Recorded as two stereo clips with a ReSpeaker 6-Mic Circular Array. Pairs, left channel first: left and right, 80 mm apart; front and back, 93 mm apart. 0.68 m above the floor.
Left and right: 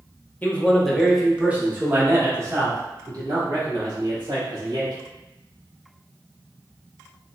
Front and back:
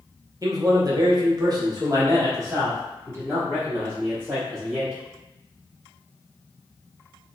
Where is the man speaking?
150° left, 0.8 m; by 4.9 s 115° right, 2.5 m.